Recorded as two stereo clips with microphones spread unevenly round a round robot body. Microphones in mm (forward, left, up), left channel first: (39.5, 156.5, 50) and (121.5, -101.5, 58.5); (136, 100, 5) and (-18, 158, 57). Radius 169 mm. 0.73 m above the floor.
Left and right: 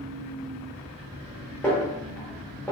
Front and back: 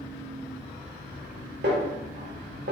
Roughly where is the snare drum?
Behind.